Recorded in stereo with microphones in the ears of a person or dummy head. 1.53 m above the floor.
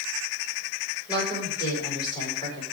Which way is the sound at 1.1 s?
25° left (ahead or behind).